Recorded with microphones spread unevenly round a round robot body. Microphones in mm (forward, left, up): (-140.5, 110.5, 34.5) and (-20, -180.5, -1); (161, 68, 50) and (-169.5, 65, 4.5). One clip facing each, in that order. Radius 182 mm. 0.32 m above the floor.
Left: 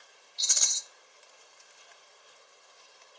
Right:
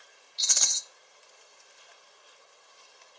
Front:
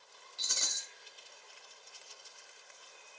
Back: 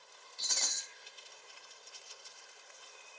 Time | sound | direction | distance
0.4 | a rattle | 80° right | 0.7 m